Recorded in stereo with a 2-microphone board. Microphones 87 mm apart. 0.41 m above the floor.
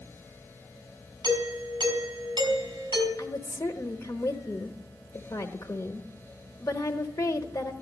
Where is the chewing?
No chewing in this recording.